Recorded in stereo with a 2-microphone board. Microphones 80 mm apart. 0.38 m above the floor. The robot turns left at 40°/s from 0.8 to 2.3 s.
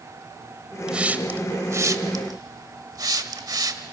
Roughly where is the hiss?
Centre.